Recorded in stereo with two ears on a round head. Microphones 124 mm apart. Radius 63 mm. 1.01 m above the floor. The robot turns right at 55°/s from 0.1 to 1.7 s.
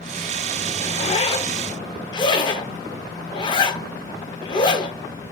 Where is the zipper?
40° left (ahead or behind), 0.7 m; by 5.3 s 35° left (ahead or behind), 0.7 m.